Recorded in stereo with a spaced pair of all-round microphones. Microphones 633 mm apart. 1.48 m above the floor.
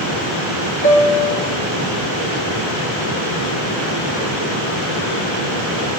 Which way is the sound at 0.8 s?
15° left (ahead or behind).